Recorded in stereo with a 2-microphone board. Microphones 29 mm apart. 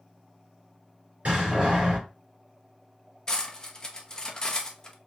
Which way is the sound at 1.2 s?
50° right (ahead or behind).